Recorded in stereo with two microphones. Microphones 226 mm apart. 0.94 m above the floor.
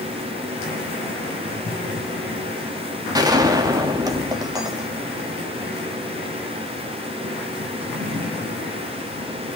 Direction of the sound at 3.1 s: 15° right (ahead or behind).